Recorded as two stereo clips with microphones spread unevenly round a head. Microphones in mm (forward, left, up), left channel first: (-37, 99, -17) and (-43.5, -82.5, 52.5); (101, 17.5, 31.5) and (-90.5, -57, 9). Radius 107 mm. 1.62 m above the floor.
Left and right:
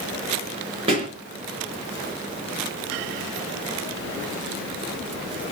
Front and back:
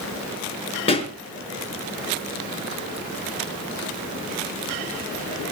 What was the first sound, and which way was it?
A pop, 40° right.